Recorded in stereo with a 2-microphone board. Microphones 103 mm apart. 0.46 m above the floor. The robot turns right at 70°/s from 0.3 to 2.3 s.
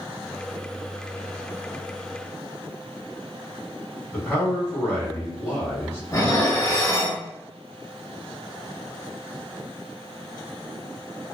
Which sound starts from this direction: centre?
A man speaking, at 4.1 s.